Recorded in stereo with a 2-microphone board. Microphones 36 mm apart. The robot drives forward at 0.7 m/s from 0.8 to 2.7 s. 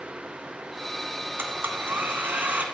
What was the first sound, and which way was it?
A blender, 80° right.